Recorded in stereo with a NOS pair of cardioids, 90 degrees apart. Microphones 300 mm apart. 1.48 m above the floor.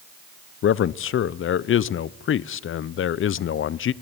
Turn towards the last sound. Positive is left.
turn(degrees=45)